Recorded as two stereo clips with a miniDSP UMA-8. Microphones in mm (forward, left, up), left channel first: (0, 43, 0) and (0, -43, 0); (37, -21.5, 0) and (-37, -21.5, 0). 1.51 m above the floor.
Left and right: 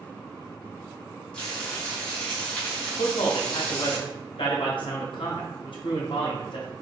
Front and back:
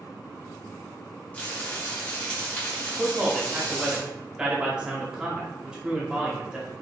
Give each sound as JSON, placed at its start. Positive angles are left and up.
{"t": 1.3, "sound": "frying", "azimuth_deg": 30, "distance_m": 1.1}
{"t": 3.0, "sound": "a man speaking", "azimuth_deg": 100, "distance_m": 0.6}